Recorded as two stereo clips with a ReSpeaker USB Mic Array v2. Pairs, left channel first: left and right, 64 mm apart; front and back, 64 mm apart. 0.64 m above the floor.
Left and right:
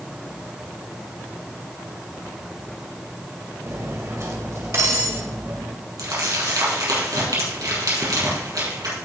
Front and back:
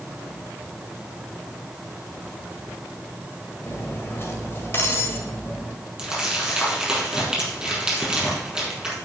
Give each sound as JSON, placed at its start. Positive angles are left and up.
{"t": 3.6, "sound": "cutlery clinking", "azimuth_deg": -50, "distance_m": 1.9}
{"t": 6.0, "sound": "crumpling", "azimuth_deg": -100, "distance_m": 6.0}